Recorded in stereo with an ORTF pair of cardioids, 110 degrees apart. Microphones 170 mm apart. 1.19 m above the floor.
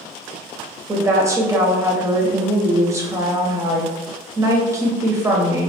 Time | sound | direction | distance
0.9 | a woman speaking | 20° right | 0.7 m